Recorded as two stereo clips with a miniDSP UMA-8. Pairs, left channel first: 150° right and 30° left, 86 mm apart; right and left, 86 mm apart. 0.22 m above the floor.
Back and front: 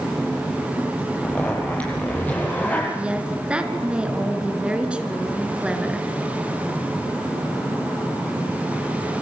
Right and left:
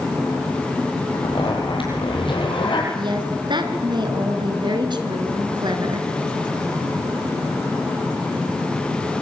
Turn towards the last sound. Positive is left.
turn(degrees=105)